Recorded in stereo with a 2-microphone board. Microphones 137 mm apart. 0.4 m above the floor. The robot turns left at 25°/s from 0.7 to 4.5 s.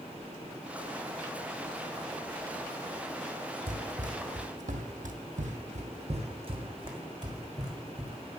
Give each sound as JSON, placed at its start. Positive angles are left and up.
{"t": 3.7, "sound": "running footsteps", "side_deg": -65, "distance_m": 1.2}